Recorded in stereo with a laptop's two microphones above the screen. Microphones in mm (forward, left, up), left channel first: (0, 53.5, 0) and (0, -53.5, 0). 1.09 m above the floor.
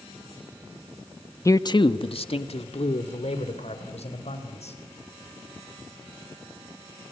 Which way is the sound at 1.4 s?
30° left (ahead or behind).